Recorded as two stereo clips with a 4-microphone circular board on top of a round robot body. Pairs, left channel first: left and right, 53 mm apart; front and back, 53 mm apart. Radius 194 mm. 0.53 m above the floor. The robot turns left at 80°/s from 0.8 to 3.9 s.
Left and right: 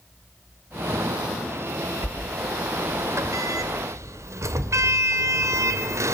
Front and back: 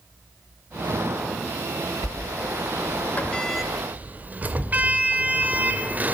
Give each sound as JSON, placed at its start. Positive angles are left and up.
{"t": 2.0, "sound": "a sliding door", "azimuth_deg": 30, "distance_m": 1.7}